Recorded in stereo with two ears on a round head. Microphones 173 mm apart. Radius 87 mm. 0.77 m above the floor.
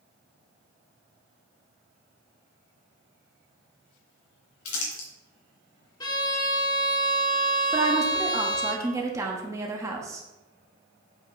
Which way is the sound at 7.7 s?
15° right (ahead or behind).